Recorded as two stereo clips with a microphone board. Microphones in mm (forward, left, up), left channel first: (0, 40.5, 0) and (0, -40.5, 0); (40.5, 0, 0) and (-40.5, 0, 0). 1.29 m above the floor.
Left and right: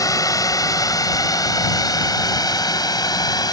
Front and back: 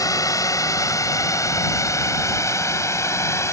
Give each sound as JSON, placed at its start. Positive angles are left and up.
{"t": 0.0, "sound": "a drone", "azimuth_deg": 45}